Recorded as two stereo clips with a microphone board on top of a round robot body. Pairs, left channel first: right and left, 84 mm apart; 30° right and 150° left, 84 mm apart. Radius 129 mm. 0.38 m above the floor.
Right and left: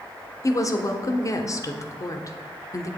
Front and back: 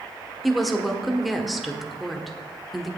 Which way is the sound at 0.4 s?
120° right.